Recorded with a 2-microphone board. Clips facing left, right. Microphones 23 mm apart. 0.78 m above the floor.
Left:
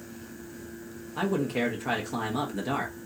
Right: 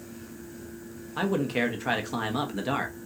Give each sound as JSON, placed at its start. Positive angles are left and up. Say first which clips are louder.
{"t": 1.2, "sound": "a man speaking", "louder": "right 1 dB", "side_deg": -30, "distance_m": 0.7}